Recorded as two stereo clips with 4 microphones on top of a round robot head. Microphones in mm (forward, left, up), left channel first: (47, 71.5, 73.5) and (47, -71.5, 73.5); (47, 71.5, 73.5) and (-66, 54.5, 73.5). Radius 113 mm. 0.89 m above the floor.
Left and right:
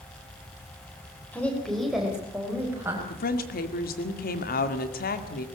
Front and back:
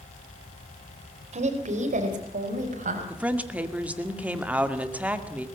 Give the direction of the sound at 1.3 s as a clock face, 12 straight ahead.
6 o'clock.